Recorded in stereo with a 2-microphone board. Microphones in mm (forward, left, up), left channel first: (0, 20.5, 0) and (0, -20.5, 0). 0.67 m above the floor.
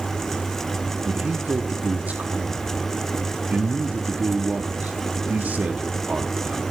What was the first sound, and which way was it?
A man speaking, 40° right (ahead or behind).